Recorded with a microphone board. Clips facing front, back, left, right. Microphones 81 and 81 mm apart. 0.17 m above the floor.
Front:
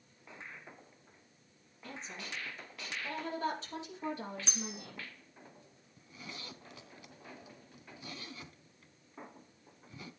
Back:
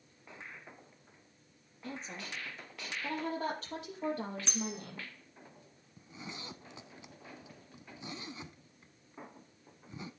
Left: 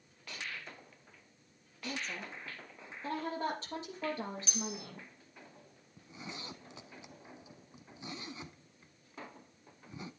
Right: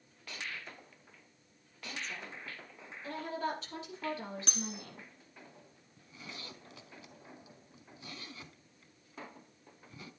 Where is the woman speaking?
135° left, 5.5 m; by 5.1 s 150° left, 7 m.